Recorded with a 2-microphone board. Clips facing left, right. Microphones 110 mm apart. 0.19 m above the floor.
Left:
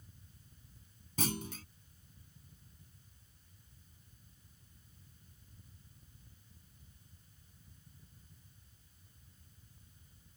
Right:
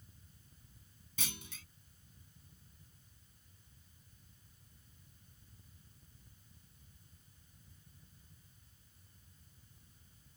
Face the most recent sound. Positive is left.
turn(degrees=45)  # may be behind; listen again after turning